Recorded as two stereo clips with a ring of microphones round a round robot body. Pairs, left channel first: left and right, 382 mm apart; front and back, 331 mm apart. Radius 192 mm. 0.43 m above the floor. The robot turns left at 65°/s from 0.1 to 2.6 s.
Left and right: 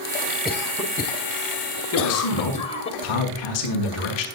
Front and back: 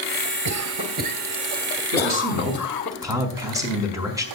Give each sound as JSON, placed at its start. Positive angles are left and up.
{"t": 0.5, "sound": "a cough", "azimuth_deg": 180, "distance_m": 1.5}
{"t": 1.9, "sound": "a man speaking", "azimuth_deg": 145, "distance_m": 4.5}